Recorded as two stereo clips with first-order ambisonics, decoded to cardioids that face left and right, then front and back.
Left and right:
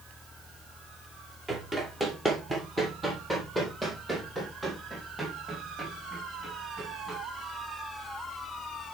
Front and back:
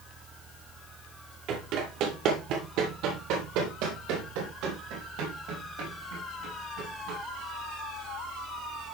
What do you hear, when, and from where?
1.5 s running footsteps: 165° right, 2 m; by 7.2 s 175° right, 5 m